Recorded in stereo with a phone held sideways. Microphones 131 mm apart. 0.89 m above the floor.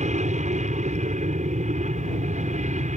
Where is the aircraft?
60° right (ahead or behind).